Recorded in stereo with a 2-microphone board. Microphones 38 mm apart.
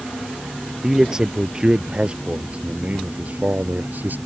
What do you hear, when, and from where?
0.8 s a man speaking: 15° right (ahead or behind); by 4.2 s 55° right (ahead or behind)